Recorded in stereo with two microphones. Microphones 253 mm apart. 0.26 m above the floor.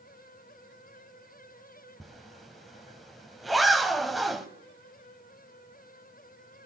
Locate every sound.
2.0 s a zipper: centre (ahead or behind), 1.1 m